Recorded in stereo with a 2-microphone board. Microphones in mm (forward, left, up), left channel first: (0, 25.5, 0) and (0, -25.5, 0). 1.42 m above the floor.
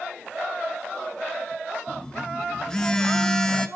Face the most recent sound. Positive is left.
turn(degrees=15)  # may be behind; listen again after turning